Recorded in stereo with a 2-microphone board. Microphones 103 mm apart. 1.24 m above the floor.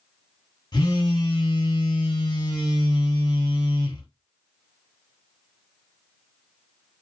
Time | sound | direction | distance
0.7 | a phone buzzing | 40° left (ahead or behind) | 1.0 m